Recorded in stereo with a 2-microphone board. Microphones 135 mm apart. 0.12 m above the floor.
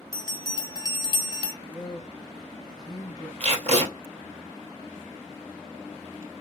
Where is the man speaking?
30° left (ahead or behind), 1.2 m.